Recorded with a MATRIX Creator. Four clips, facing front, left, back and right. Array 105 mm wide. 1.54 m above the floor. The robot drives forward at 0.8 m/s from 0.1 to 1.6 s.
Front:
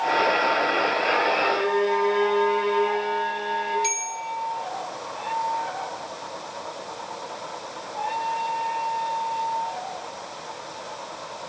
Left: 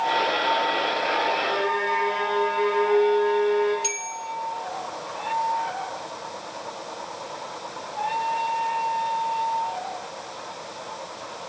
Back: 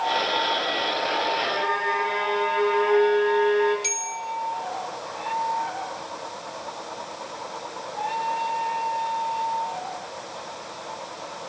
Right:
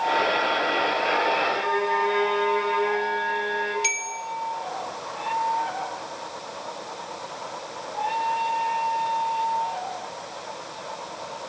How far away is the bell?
About 1.8 m.